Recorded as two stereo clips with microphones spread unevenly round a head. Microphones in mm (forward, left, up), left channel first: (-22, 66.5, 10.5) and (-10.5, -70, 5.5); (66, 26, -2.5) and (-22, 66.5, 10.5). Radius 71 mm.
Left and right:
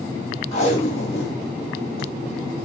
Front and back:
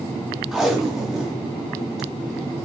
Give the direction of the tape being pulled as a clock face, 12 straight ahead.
10 o'clock.